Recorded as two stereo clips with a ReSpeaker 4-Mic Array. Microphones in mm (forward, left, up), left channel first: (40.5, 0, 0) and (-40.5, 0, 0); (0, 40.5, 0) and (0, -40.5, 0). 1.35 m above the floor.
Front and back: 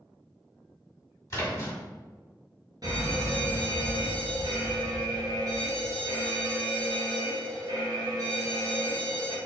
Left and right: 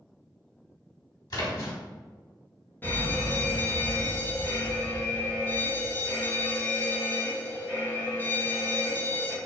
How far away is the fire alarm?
About 1.7 m.